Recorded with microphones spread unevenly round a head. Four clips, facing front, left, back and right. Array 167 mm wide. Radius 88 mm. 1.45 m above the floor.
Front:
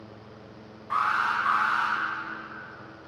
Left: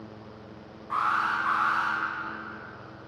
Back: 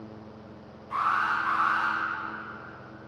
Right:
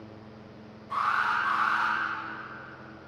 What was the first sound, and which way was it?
An alarm, 25° left.